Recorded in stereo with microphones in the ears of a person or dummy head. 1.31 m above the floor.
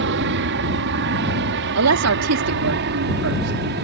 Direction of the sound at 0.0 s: 65° right (ahead or behind).